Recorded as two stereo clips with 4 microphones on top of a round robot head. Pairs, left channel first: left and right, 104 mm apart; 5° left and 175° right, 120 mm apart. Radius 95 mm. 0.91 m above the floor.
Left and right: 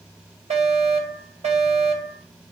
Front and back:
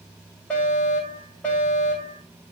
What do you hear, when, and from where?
0.5 s a fire alarm: 80° right, 8.5 m